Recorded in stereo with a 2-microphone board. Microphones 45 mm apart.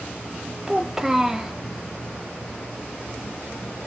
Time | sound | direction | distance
0.7 | a child speaking | 10° right (ahead or behind) | 0.5 m